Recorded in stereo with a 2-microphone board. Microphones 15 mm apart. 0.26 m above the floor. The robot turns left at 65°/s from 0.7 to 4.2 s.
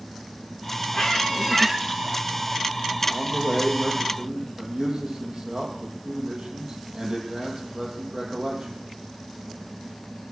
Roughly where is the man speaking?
Ahead right.